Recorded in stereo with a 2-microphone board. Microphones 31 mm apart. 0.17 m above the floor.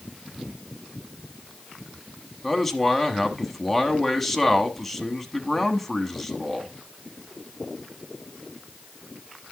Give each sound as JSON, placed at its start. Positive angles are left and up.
{"t": 2.4, "sound": "a man speaking", "side_deg": 5, "distance_m": 1.1}